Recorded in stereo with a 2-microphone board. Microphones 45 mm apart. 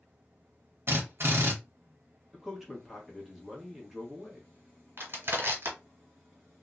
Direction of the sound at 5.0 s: 55° right (ahead or behind).